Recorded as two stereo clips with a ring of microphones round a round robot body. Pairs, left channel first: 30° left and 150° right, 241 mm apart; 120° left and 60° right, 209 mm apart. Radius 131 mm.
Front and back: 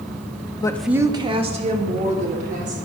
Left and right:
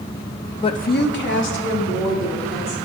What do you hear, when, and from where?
0.6 s a woman speaking: 80° left, 0.5 m; by 2.8 s 150° left, 3 m